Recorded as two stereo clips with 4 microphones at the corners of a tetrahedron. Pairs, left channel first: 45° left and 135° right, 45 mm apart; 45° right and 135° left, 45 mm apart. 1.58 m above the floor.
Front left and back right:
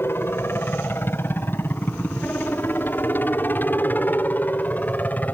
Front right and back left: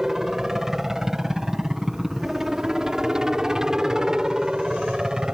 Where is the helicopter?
60° left; by 5.3 s 70° left.